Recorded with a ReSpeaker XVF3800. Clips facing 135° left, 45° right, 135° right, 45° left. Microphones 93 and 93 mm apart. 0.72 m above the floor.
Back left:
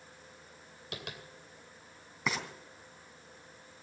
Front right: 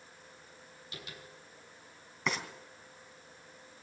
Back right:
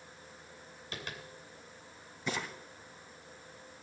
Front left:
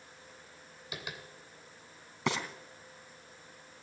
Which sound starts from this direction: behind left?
Tapping, at 0.9 s.